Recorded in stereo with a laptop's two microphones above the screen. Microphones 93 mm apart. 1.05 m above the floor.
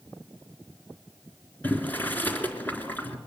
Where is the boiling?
20° left (ahead or behind), 3.5 m.